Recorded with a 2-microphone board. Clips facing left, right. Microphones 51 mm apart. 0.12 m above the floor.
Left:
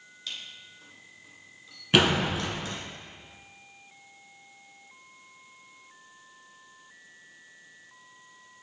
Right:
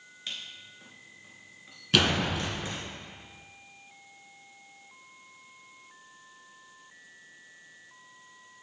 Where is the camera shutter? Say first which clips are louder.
Even; 30° right (ahead or behind), 2.0 m.